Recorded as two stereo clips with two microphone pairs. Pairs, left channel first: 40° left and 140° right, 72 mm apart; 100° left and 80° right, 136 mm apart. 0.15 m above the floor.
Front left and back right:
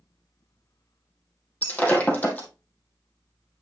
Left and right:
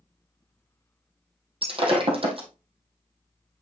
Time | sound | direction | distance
1.6 | breaking glass | 30° right | 2.5 m